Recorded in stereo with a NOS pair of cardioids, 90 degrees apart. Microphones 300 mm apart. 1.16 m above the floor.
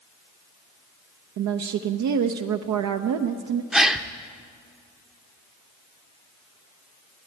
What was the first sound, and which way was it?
A woman speaking, 65° right.